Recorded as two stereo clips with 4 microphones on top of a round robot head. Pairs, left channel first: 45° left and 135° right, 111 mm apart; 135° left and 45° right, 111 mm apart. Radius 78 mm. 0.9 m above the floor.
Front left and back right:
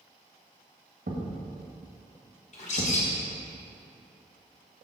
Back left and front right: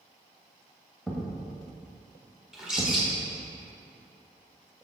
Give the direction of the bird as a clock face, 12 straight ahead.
11 o'clock.